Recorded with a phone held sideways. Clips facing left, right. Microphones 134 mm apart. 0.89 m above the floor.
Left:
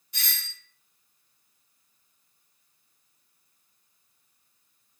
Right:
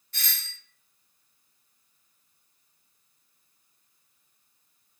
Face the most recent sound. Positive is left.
turn(degrees=15)  # may be behind; listen again after turning